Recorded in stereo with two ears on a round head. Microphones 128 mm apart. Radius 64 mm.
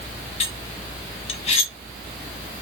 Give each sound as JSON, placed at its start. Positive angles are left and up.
{"t": 0.4, "sound": "cutlery clinking", "side_deg": 45, "distance_m": 0.8}